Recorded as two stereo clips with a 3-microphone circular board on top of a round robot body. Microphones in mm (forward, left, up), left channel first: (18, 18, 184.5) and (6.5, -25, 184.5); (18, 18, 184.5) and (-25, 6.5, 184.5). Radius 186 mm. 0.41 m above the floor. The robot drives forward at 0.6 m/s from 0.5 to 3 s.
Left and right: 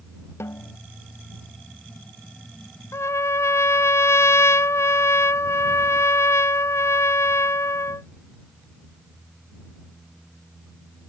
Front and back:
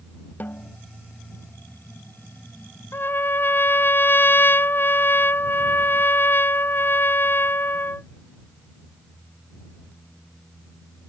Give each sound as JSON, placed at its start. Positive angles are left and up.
{"t": 0.4, "sound": "a snare drum", "azimuth_deg": 65}
{"t": 2.9, "sound": "a trumpet", "azimuth_deg": 55}